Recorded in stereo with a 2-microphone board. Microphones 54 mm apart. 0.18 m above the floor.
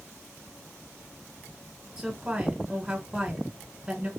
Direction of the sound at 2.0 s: 10° right (ahead or behind).